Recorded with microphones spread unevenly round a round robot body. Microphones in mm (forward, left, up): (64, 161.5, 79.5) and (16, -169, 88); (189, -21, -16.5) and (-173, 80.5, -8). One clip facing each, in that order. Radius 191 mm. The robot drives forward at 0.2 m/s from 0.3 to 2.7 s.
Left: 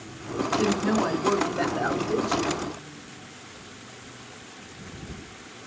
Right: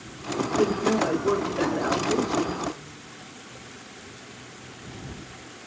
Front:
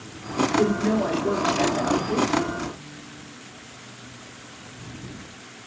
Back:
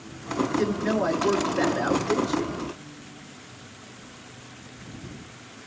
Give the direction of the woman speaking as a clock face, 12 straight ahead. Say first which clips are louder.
Right 2 dB, front 4 dB; 6 o'clock.